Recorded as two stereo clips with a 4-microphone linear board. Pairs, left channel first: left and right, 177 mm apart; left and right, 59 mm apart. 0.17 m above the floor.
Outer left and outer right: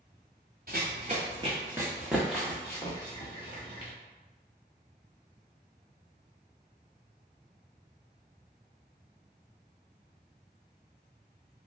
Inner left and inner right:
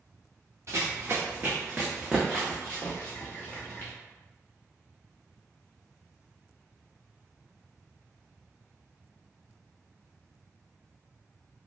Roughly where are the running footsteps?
Right.